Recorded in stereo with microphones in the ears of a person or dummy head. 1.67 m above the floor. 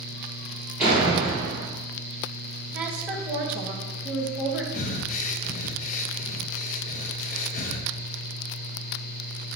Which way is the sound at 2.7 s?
10° right (ahead or behind).